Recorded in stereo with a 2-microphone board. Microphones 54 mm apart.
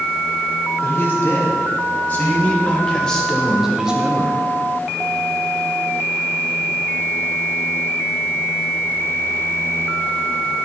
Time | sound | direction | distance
0.8 | a man speaking | 45° left (ahead or behind) | 2.5 m